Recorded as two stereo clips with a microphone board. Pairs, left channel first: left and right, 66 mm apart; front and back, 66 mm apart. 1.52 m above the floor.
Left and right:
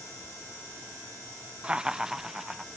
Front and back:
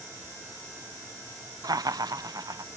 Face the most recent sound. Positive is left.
turn(degrees=-175)